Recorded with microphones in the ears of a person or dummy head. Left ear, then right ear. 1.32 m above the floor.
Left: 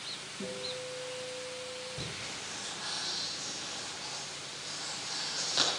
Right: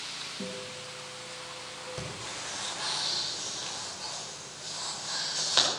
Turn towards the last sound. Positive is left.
turn(degrees=-45)  # may be behind; listen again after turning